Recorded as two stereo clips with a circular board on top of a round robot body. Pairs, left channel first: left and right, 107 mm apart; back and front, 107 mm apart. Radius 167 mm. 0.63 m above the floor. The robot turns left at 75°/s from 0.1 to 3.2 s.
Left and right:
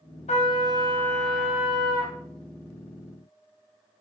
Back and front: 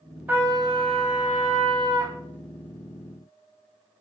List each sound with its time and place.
0.3 s a trumpet: 75° left, 2 m; by 2.1 s 65° right, 2 m